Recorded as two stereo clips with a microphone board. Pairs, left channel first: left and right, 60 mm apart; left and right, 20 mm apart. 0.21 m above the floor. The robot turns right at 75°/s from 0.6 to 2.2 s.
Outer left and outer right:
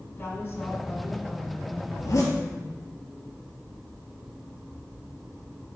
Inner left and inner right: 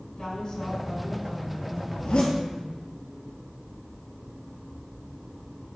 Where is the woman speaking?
105° left, 1.9 m; by 2.9 s 135° right, 1.9 m.